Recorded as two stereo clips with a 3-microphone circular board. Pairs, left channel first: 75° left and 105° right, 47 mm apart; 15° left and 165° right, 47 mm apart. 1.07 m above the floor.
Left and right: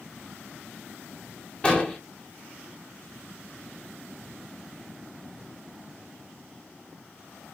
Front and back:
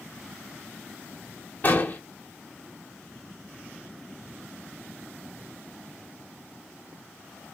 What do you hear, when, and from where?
1.6 s an explosion: 20° left, 0.9 m